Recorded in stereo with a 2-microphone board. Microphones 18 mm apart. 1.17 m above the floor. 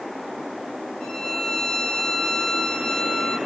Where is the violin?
50° left (ahead or behind), 10 m.